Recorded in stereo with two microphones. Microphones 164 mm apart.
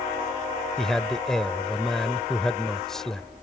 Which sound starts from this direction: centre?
A man speaking, at 0.8 s.